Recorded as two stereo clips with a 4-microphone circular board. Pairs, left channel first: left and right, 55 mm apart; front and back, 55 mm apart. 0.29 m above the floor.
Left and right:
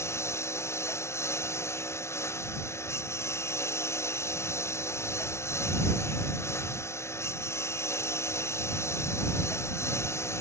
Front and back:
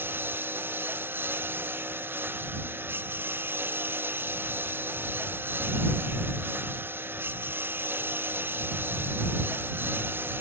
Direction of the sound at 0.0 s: 130° left.